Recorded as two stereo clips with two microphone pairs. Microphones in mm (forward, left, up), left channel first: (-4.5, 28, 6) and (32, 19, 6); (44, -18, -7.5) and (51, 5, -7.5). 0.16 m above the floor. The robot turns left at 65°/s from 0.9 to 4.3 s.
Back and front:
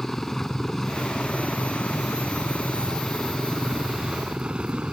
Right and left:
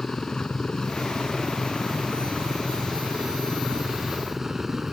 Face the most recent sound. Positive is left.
turn(degrees=20)